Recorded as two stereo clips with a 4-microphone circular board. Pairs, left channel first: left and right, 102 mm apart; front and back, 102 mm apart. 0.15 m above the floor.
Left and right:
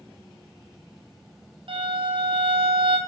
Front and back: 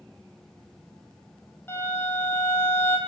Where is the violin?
65° right, 2.5 m.